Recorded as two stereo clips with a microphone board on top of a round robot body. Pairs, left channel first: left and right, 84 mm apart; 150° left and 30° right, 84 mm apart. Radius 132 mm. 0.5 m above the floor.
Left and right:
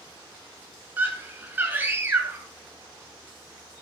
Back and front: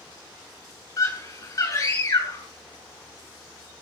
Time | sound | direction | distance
1.0 | a scream | 160° right | 6.5 m